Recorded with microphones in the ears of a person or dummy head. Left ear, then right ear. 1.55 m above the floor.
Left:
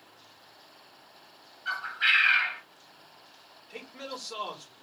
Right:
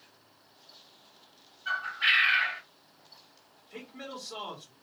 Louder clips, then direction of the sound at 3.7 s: Left 2 dB; 55° left (ahead or behind).